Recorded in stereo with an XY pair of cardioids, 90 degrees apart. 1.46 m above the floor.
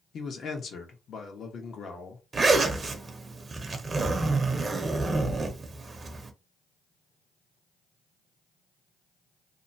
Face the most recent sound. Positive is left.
turn(degrees=-35)